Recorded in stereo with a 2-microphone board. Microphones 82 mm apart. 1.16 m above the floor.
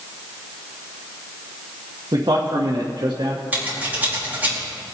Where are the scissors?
20° right (ahead or behind), 3.5 m.